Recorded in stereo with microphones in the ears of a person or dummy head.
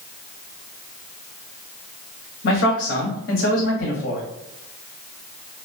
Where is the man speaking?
60° left (ahead or behind), 0.9 m.